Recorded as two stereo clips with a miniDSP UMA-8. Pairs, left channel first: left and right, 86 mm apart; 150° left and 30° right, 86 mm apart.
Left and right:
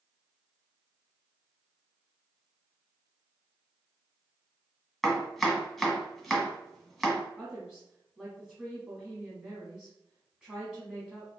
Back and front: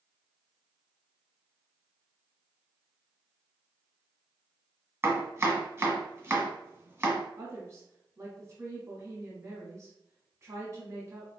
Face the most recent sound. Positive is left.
turn(degrees=-20)